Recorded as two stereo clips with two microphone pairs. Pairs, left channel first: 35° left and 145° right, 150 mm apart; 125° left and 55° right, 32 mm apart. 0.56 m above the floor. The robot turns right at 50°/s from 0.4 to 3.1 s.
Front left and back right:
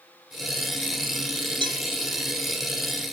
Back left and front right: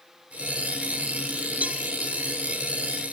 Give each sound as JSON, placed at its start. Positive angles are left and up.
{"t": 1.6, "sound": "a cowbell", "azimuth_deg": -90}